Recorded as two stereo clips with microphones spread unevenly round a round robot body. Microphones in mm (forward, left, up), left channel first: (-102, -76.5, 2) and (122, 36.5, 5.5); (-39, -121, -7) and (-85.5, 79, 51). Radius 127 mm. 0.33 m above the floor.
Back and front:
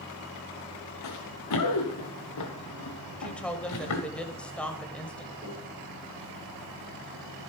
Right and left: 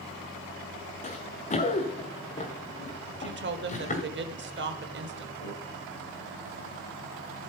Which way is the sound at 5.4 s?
55° right.